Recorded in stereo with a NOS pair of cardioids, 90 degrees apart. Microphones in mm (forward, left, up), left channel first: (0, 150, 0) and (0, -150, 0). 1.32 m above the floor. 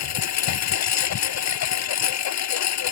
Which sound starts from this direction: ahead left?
A lawn mower, at 0.0 s.